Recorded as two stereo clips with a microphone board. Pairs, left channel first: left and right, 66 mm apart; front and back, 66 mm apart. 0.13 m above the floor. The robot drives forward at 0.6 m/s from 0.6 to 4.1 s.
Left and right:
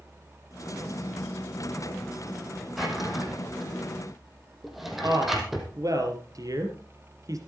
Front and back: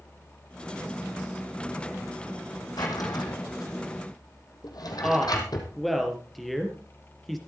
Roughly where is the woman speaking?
Right.